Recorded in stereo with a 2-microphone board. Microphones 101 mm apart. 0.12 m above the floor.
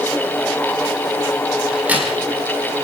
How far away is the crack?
About 5 m.